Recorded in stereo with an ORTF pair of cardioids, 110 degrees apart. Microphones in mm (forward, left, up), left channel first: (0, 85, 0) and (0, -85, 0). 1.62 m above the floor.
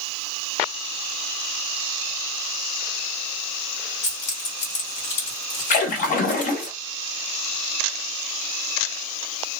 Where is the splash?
55° left, 1.0 m.